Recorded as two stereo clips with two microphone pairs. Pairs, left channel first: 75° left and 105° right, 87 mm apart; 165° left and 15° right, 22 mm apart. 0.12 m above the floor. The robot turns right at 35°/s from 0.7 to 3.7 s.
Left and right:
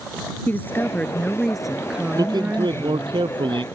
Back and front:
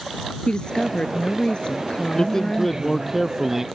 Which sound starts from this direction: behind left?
A woman speaking, at 0.5 s.